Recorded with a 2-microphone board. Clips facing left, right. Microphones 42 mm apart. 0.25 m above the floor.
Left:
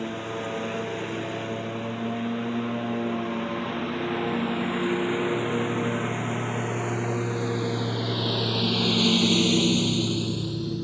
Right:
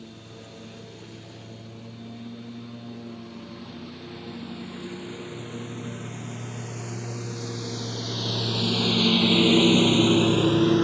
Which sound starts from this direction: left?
A lawn mower, at 0.0 s.